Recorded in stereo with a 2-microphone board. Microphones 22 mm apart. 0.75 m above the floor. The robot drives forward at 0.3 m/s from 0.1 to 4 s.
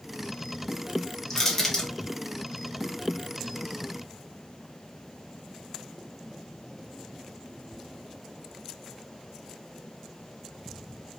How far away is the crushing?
About 1.1 m.